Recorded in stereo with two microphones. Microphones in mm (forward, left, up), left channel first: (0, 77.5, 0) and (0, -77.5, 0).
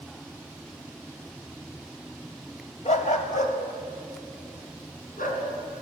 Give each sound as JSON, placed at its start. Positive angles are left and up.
{"t": 2.9, "sound": "a dog barking", "side_deg": 50, "distance_m": 2.0}